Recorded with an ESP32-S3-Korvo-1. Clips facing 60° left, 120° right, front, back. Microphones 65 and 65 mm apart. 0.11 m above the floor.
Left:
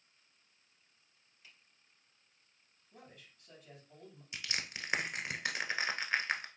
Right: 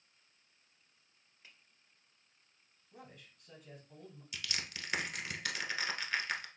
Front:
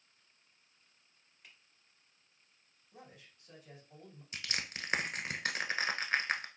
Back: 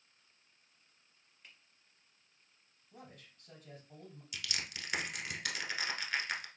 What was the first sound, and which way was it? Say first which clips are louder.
A finger snap: right 1 dB, even; 90° right.